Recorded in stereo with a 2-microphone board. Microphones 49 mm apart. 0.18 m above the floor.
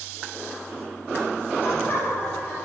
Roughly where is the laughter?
Left.